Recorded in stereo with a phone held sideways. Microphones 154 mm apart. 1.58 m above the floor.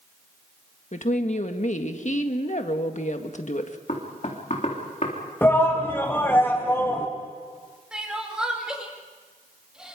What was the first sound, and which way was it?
A woman speaking, 50° left (ahead or behind).